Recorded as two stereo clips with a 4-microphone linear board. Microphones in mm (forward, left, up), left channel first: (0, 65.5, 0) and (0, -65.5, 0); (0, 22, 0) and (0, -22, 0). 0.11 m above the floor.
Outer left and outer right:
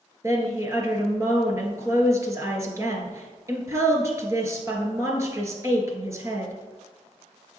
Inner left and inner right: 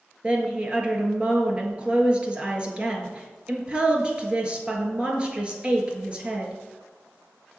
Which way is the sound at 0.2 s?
25° right (ahead or behind).